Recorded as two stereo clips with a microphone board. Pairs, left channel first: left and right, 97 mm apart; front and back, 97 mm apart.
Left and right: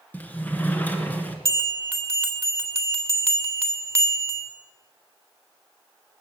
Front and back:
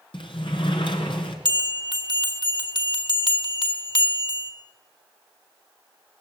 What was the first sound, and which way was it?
A sliding door, 20° left.